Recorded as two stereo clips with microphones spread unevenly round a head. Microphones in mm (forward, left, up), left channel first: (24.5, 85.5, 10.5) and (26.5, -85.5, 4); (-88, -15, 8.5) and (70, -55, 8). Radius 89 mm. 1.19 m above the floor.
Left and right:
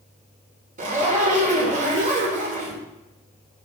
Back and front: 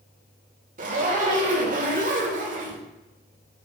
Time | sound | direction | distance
0.8 | a zipper | 50° right | 1.8 m